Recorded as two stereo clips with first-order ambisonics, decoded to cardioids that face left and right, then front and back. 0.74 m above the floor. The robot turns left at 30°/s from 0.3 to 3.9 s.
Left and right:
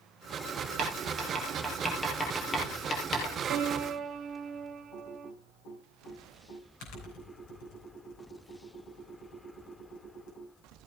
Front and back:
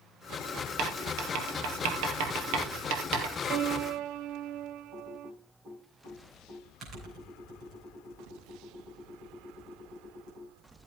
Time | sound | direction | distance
0.8 | writing | 140° right | 3.5 m
3.5 | a piano | 135° right | 0.8 m
4.9 | typing on a keyboard | 120° left | 5.5 m